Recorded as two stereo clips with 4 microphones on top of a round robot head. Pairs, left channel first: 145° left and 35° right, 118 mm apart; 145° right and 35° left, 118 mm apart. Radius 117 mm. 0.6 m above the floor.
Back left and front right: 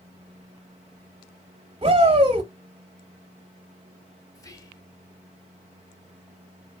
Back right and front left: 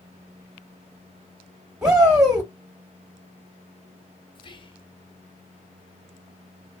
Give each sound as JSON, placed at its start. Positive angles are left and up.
{"t": 1.8, "sound": "a shout", "azimuth_deg": -45, "distance_m": 0.8}
{"t": 4.3, "sound": "whispering", "azimuth_deg": -165, "distance_m": 1.0}